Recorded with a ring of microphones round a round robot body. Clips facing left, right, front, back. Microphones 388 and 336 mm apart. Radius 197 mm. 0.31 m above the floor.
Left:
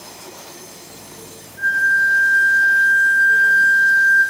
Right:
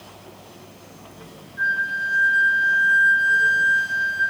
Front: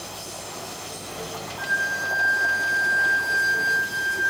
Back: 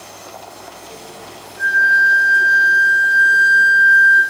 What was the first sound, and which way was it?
A flute, 160° right.